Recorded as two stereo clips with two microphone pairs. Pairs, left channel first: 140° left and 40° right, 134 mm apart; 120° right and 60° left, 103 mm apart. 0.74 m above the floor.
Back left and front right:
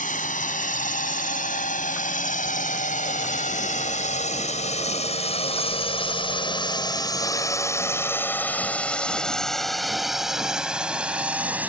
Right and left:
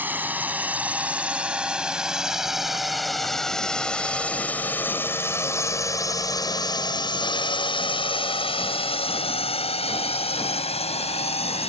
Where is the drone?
130° left; by 11.7 s 120° right.